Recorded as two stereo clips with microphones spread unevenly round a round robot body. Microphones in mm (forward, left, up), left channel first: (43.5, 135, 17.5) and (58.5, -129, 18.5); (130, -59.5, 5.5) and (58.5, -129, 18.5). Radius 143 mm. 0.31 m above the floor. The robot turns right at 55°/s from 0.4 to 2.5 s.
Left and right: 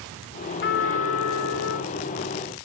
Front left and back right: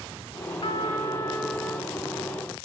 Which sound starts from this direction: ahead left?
A trumpet, at 0.6 s.